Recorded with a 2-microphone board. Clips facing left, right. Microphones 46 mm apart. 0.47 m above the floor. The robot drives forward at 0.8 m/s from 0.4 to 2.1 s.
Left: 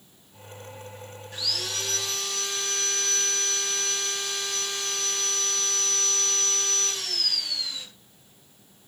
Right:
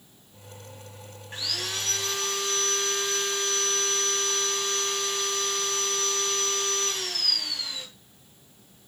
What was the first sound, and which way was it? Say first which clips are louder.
Sawing: even; 35° right (ahead or behind).